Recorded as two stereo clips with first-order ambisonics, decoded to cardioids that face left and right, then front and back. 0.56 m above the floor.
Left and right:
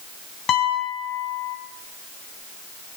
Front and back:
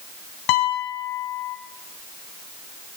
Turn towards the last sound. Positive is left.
turn(degrees=30)